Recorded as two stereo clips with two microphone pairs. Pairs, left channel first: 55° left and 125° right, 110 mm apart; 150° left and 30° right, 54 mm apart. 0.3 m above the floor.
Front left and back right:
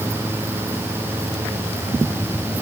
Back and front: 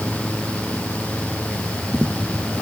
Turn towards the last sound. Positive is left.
No sound to turn to.